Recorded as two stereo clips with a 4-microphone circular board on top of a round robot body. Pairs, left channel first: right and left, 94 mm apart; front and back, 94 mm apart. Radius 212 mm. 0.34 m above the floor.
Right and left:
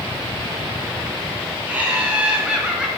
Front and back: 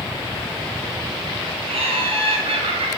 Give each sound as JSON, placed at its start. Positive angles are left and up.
{"t": 1.7, "sound": "laughter", "azimuth_deg": 165, "distance_m": 5.0}